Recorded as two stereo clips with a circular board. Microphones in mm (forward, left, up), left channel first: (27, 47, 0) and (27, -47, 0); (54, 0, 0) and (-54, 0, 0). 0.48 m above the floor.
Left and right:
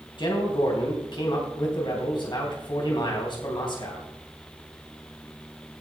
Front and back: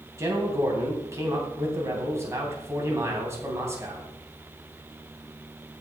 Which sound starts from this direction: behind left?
A man speaking, at 0.2 s.